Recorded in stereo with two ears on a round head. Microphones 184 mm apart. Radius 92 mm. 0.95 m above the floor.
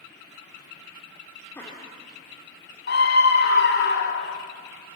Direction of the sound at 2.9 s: 55° left (ahead or behind).